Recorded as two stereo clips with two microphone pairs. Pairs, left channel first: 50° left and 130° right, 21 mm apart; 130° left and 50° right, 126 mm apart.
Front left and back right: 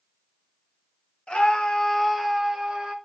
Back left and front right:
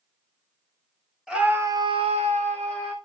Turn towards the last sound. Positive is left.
turn(degrees=-80)